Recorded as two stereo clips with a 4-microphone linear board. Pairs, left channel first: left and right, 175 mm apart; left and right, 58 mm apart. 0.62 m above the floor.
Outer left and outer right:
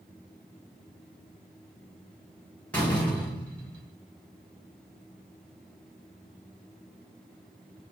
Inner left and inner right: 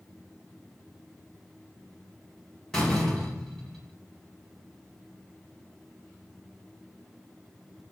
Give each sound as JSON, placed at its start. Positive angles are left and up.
{"t": 2.7, "sound": "a door slam", "side_deg": 5, "distance_m": 1.8}